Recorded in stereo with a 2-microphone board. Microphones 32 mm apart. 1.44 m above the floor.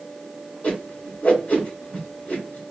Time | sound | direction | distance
0.6 | a whoosh | 60° left (ahead or behind) | 2 m